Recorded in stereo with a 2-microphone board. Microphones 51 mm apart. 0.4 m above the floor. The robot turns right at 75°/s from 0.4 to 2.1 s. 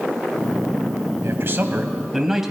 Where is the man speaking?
70° right, 2 m; by 2.5 s 5° right, 2 m.